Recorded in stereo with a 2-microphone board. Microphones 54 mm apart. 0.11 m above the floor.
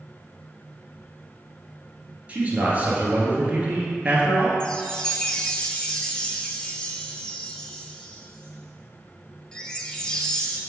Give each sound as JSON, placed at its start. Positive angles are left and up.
{"t": 2.3, "sound": "a man speaking", "side_deg": -25, "distance_m": 1.6}
{"t": 4.6, "sound": "a chime", "side_deg": 15, "distance_m": 0.6}